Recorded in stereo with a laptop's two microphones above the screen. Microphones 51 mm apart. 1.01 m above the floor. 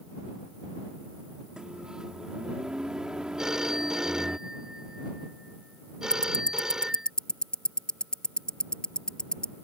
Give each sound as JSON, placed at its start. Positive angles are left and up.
{"t": 1.6, "sound": "a microwave", "side_deg": -15}
{"t": 3.4, "sound": "a phone ringing", "side_deg": -10}
{"t": 6.1, "sound": "ticking", "side_deg": 15}